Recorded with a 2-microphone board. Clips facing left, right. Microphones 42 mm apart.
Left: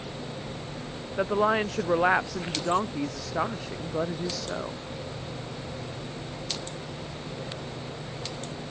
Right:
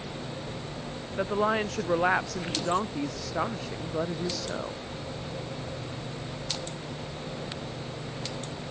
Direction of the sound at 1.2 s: 10° left (ahead or behind).